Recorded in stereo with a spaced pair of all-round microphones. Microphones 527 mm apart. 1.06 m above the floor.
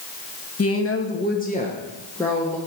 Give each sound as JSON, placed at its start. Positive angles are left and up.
{"t": 0.6, "sound": "a woman speaking", "side_deg": 30, "distance_m": 0.7}